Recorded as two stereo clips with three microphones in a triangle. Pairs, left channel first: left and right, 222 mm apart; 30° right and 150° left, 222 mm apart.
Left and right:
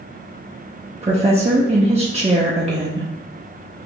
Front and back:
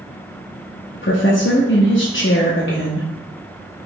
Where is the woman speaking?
30° right, 0.8 m.